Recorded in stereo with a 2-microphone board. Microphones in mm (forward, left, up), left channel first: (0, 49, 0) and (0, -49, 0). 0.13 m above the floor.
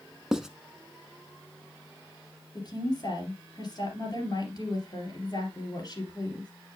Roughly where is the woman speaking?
Left.